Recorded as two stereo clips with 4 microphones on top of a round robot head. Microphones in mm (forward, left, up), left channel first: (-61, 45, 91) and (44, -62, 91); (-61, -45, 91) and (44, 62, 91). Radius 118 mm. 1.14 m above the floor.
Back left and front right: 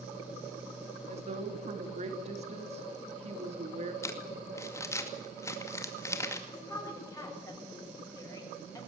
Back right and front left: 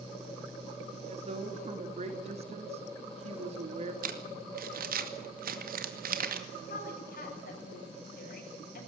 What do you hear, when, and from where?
1.1 s a woman speaking: straight ahead, 3 m
4.0 s crumpling: 65° left, 2 m
6.5 s a woman speaking: 155° right, 8 m